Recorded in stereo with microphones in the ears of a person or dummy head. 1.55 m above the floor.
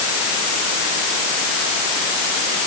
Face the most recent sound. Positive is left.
No sound to turn to.